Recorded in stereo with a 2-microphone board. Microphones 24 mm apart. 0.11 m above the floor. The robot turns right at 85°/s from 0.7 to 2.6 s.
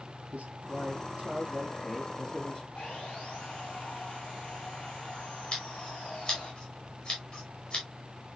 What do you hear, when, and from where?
0.3 s a man speaking: 105° right, 4.5 m; by 2.6 s 55° left, 4.5 m
2.8 s sawing: 45° left (ahead or behind), 4 m
5.5 s scissors: 40° left (ahead or behind), 5.5 m